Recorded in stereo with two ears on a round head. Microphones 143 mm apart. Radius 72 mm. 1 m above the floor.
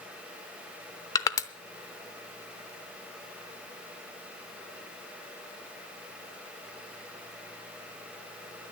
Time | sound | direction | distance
1.1 | crushing | 20° left (ahead or behind) | 0.7 m